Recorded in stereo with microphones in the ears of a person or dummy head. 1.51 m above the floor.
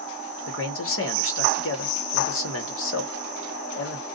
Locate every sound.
0.5 s a man speaking: 80° left, 1.2 m